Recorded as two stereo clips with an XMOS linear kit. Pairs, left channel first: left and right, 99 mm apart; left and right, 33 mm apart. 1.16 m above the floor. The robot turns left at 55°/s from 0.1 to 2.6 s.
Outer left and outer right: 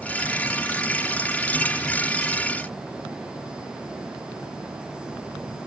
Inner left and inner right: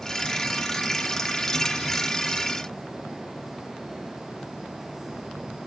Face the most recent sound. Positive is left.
No sound to turn to.